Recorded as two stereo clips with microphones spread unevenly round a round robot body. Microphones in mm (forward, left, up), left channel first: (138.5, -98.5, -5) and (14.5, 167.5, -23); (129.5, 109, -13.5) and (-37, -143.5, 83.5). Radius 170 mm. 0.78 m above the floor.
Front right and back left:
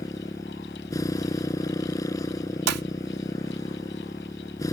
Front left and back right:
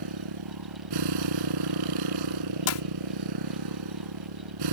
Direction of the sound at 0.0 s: 145° right.